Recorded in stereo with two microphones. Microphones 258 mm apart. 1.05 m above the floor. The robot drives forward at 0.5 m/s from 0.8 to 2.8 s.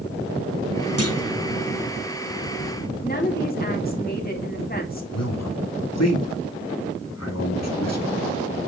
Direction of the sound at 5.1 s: 80° left.